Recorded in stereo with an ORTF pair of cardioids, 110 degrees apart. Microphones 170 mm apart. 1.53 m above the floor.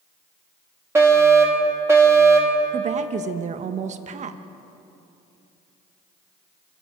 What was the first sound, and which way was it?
A fire alarm, 15° right.